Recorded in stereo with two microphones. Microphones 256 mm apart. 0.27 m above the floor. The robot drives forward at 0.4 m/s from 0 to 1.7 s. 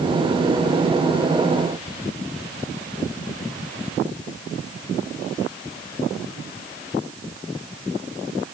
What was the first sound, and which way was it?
Only background noise.